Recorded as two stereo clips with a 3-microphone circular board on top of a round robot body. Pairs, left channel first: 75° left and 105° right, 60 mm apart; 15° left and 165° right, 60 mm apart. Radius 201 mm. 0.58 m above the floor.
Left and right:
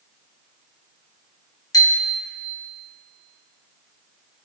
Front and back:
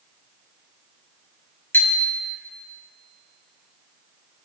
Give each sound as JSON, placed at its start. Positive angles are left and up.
{"t": 1.7, "sound": "a bicycle bell", "azimuth_deg": 65, "distance_m": 2.5}